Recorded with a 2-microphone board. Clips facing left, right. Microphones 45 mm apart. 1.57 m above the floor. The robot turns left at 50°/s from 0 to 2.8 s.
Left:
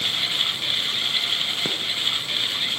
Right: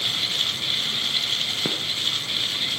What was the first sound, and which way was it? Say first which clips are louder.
A gunshot: even; 5° right (ahead or behind).